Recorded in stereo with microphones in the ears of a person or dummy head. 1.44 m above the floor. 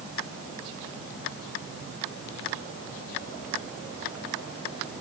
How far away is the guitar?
No guitar in this recording.